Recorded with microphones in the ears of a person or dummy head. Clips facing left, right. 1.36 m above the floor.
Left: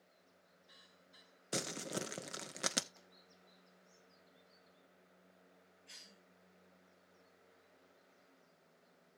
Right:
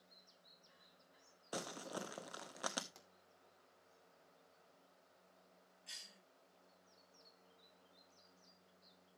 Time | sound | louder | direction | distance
1.5 | crumpling | left 4 dB | 30° left (ahead or behind) | 0.6 m
3.0 | a pop | left 1 dB | 65° right (ahead or behind) | 2.5 m
5.9 | a cough | left 2 dB | 80° right | 5 m